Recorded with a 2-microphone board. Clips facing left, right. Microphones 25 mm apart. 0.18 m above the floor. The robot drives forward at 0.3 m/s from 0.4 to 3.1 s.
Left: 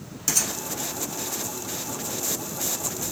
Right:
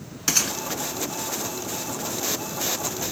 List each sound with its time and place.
0.3 s a gunshot: 40° right (ahead or behind), 1.1 m